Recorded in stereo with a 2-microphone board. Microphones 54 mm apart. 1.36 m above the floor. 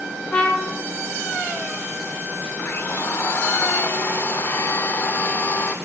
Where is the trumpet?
25° left (ahead or behind), 1.7 m.